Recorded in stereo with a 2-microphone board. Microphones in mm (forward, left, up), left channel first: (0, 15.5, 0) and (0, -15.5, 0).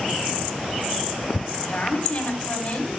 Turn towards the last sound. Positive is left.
turn(degrees=45)  # may be behind; listen again after turning